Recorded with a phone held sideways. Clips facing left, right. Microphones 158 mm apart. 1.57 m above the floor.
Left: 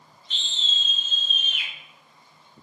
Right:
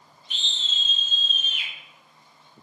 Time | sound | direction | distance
0.3 | a scream | 10° right (ahead or behind) | 0.8 m